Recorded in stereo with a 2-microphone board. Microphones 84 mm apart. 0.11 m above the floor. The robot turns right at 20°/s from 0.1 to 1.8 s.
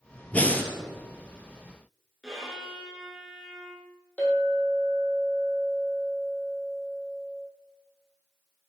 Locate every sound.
0.3 s breathing: 15° left (ahead or behind), 0.8 m; by 0.7 s 25° left (ahead or behind), 0.8 m
2.2 s a violin: 5° right (ahead or behind), 1.6 m
4.2 s a clink: 15° left (ahead or behind), 3 m